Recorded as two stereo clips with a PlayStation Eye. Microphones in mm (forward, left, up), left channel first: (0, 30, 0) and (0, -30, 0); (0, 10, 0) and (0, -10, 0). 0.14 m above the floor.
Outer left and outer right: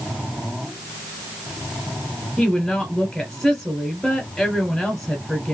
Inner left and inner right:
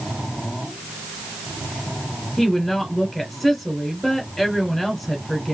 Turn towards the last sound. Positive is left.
turn(degrees=5)  # may be behind; listen again after turning